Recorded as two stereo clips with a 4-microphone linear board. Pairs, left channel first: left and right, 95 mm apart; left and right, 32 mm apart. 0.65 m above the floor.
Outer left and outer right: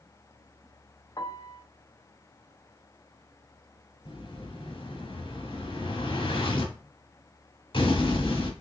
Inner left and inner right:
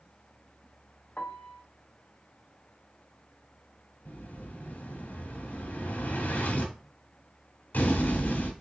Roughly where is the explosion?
Left.